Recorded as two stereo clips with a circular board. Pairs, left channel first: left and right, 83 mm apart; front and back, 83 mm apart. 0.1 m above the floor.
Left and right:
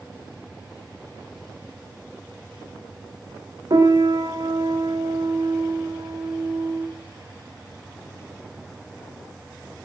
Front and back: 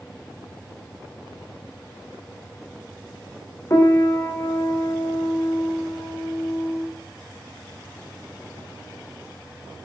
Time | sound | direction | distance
3.7 | a piano | 55° right | 1.8 m